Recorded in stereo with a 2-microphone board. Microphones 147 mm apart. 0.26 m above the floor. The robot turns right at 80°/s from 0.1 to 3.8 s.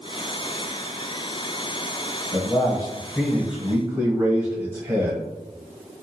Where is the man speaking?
30° left (ahead or behind), 1.0 m; by 5.2 s 15° right (ahead or behind), 1.0 m.